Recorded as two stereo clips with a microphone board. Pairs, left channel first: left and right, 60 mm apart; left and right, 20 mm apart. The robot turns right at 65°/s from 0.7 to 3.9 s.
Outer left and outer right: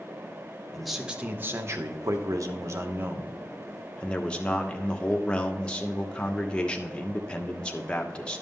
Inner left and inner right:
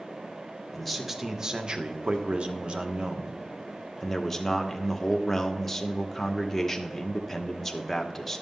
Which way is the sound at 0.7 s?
170° left.